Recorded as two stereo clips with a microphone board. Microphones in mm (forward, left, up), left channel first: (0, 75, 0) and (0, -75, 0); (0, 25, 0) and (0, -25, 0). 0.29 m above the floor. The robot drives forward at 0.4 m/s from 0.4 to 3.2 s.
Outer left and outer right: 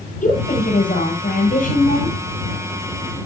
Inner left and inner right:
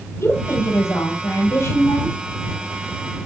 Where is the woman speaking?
60° left (ahead or behind), 7.5 m; by 2.1 s 65° left (ahead or behind), 7.5 m.